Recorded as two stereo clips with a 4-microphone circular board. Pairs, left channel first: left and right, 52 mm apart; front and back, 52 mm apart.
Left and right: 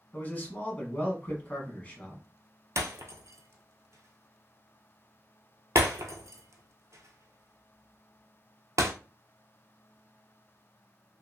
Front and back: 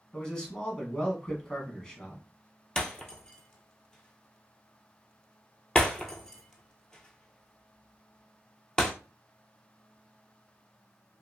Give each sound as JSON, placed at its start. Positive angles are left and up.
{"t": 0.1, "sound": "a man speaking", "azimuth_deg": 65, "distance_m": 1.2}
{"t": 2.8, "sound": "breaking glass", "azimuth_deg": -75, "distance_m": 0.7}